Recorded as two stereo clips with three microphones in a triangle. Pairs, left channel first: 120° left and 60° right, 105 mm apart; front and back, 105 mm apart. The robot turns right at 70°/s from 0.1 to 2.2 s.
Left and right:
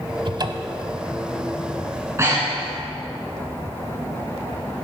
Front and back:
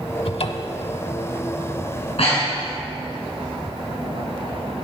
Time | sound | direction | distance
0.2 | a cupboard door | 25° right | 0.9 m
1.9 | breathing | 20° right | 4.5 m